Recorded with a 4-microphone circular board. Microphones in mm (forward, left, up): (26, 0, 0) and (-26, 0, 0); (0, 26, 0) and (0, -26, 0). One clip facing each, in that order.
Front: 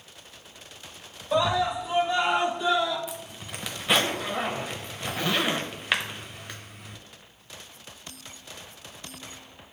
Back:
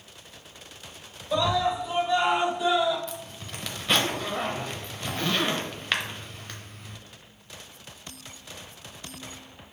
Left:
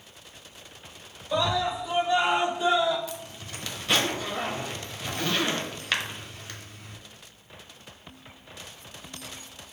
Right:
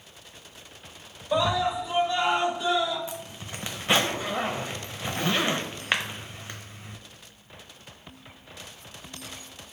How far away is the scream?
About 1.0 m.